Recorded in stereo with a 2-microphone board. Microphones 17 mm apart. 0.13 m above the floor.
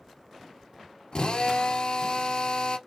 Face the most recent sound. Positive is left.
turn(degrees=55)  # may be behind; listen again after turning